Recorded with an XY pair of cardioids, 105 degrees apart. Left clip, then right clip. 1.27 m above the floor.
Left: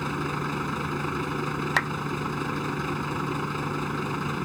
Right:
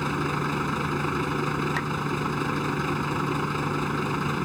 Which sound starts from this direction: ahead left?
A clap, at 1.8 s.